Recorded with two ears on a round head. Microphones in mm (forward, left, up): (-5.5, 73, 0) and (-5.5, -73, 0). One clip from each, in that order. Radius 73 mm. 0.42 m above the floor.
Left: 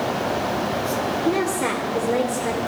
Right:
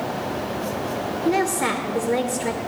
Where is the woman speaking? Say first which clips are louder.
Right 4 dB; 25° right (ahead or behind), 1.4 m.